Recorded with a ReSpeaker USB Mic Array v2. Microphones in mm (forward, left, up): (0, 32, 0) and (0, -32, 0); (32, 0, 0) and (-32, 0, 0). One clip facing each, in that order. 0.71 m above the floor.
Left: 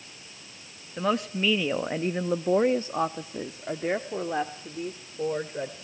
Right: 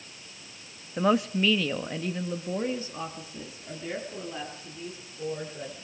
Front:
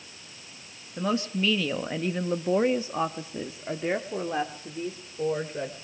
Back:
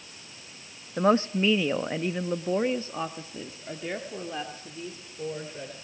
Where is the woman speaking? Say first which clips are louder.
Right 3 dB, back 5 dB; 165° right, 0.7 m; by 5.8 s 55° left, 2.5 m.